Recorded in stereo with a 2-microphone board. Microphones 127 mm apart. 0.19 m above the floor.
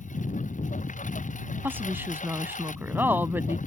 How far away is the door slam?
No door slam in this recording.